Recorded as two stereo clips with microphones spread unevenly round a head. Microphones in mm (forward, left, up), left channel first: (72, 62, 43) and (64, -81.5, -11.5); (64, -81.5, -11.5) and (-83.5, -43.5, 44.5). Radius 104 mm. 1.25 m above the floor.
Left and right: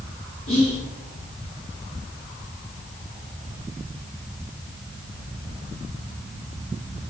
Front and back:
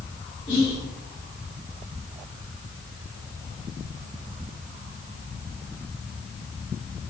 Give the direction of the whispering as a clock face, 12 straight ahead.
11 o'clock.